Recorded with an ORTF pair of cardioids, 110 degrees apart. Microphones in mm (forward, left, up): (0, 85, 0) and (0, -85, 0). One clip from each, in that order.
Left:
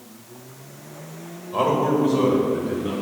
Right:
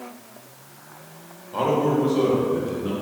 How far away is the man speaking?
About 1.5 m.